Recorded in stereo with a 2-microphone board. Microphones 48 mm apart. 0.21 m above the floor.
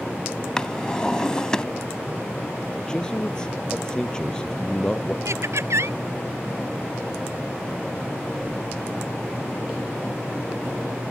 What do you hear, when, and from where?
0.6 s a drawer: 15° left (ahead or behind)
2.8 s a man speaking: 15° left (ahead or behind)
5.2 s laughter: 75° right (ahead or behind)